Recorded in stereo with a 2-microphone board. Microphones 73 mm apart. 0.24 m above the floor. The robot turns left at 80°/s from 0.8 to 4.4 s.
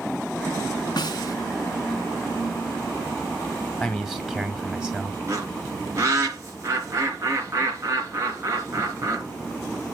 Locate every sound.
1.0 s a snare drum: 90° left, 1.0 m; by 1.4 s 60° left, 1.0 m
3.8 s a man speaking: 5° left (ahead or behind), 1.6 m; by 5.2 s 15° right (ahead or behind), 1.6 m
5.3 s a bird: 45° right (ahead or behind), 3.5 m